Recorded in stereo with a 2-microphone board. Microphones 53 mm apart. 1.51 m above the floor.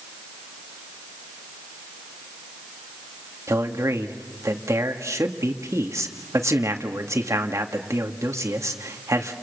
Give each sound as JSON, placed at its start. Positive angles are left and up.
{"t": 3.5, "sound": "a man speaking", "side_deg": -80, "distance_m": 2.0}